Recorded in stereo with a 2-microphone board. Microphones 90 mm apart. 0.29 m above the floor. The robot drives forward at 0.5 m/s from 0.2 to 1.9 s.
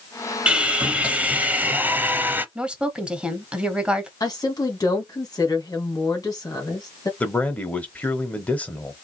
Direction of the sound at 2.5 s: 15° right (ahead or behind).